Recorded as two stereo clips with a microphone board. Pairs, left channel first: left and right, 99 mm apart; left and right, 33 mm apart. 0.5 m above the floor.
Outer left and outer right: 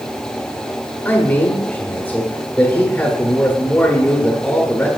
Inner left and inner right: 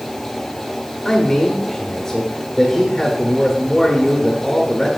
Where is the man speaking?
20° left (ahead or behind), 1.2 m.